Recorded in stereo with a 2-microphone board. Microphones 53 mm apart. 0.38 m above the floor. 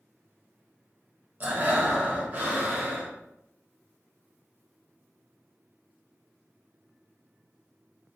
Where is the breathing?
35° right (ahead or behind), 0.6 m.